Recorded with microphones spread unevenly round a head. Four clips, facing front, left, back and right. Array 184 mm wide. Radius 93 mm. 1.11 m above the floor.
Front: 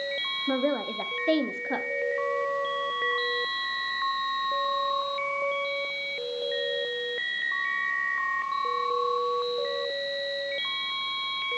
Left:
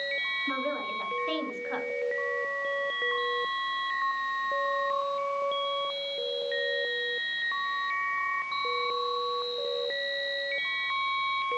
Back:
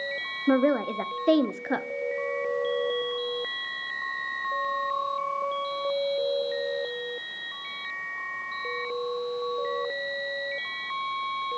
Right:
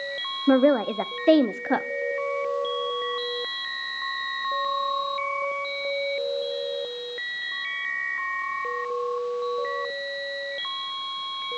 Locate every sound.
0.5 s a woman speaking: 110° right, 0.5 m